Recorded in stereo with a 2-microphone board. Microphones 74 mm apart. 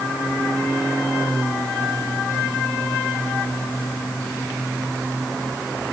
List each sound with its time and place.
Only background noise.